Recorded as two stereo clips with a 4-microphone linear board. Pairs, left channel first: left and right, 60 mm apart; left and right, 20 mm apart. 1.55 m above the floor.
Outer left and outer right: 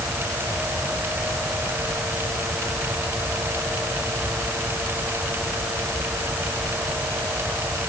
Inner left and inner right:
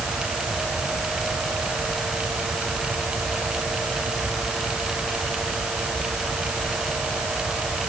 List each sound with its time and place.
Only background noise.